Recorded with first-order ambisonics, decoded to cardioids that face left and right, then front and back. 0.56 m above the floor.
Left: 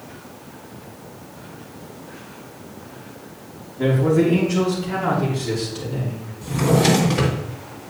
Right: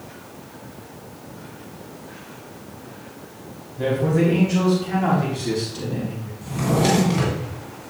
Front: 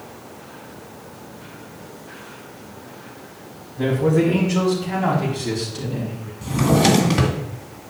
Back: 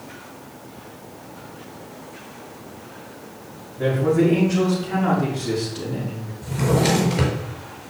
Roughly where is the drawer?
Ahead.